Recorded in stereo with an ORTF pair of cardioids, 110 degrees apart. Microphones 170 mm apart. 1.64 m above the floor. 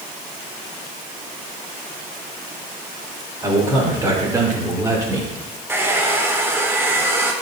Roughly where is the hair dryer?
Ahead.